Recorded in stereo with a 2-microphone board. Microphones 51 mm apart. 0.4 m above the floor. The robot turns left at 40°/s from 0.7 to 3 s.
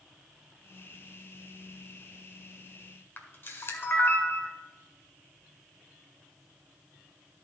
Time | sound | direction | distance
3.2 | a camera shutter | 45° left (ahead or behind) | 1.7 m